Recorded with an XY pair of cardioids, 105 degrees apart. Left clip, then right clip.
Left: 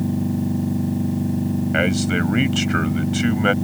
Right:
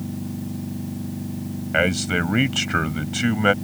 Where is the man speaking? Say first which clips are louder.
Right 1 dB; 10° right.